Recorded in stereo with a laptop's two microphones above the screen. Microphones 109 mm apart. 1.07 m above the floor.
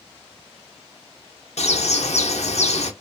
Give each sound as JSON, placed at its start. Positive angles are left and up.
{"t": 1.6, "sound": "a bird", "side_deg": 80, "distance_m": 0.6}